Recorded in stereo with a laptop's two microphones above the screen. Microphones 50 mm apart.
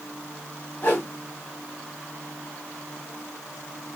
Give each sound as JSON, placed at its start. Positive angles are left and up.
{"t": 0.8, "sound": "a whoosh", "side_deg": 40, "distance_m": 1.0}